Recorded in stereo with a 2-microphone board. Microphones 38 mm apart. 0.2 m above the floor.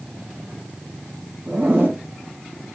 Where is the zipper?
45° right (ahead or behind), 1.5 m.